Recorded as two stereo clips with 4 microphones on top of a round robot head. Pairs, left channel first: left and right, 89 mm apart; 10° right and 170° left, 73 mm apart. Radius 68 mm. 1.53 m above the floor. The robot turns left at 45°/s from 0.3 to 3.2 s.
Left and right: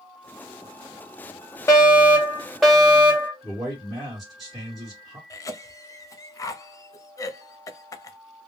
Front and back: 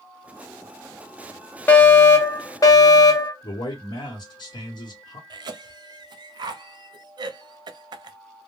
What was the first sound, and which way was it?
A fire alarm, 45° left.